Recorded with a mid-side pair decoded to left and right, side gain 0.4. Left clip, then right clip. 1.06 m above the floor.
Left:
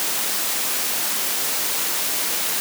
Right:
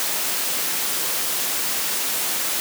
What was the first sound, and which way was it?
Only background noise.